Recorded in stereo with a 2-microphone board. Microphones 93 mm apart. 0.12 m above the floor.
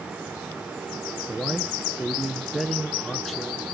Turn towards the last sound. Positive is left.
turn(degrees=0)  # may be behind; listen again after turning